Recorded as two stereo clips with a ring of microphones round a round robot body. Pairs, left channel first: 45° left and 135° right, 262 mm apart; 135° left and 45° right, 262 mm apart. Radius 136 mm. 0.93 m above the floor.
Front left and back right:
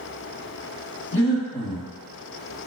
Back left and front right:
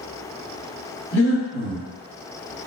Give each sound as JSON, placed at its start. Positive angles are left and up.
{"t": 1.1, "sound": "breathing", "azimuth_deg": 90, "distance_m": 1.1}